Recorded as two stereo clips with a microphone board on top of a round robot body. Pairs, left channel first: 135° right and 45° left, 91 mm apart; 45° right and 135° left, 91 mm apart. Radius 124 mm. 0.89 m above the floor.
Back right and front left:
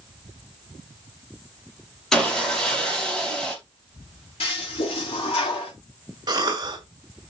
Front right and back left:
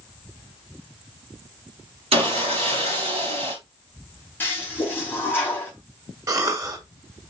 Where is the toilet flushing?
115° right, 3 m.